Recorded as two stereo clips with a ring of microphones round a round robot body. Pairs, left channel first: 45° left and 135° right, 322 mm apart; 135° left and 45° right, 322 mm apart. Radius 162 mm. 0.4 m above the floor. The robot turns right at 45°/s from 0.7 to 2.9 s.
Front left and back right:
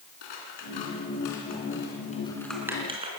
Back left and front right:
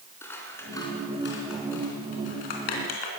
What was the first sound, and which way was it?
Scissors, 50° left.